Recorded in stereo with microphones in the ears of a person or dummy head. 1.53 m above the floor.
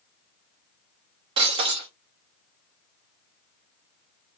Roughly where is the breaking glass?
Right.